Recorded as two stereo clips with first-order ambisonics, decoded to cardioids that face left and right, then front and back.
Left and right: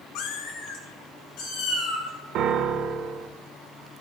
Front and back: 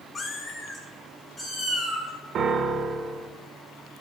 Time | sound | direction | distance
0.1 | a cat meowing | 70° left | 1.1 m
2.4 | a piano | 130° right | 0.8 m